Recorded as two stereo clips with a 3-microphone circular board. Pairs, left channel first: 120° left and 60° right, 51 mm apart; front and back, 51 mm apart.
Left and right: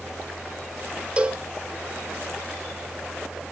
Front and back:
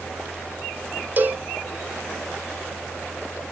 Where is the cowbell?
125° right, 0.9 m.